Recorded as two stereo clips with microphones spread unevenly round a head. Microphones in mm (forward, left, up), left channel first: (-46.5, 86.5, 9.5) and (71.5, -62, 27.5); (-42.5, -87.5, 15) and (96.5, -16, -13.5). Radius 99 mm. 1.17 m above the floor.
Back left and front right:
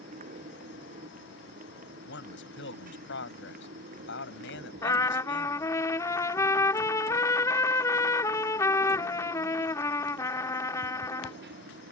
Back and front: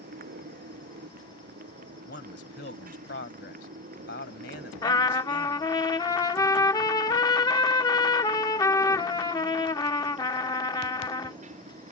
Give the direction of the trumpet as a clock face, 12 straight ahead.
5 o'clock.